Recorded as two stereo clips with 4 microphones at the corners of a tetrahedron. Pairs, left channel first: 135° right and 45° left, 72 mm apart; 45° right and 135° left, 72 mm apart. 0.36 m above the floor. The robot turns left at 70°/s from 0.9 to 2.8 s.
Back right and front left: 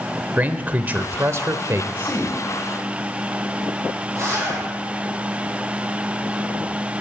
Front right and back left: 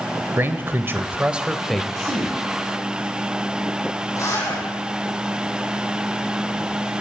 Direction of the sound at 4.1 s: Straight ahead.